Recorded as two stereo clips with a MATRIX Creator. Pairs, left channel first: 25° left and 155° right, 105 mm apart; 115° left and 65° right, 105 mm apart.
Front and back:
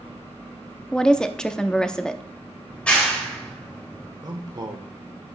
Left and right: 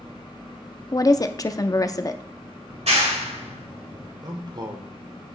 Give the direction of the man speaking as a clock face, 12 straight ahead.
4 o'clock.